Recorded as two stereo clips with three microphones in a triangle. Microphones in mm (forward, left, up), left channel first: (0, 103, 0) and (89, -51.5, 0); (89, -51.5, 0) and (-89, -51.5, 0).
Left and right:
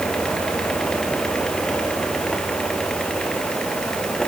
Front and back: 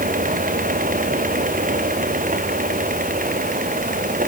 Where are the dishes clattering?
I don't hear dishes clattering.